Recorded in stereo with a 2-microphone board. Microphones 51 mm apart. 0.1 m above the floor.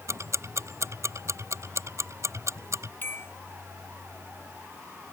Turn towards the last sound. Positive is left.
turn(degrees=45)  # may be behind; listen again after turning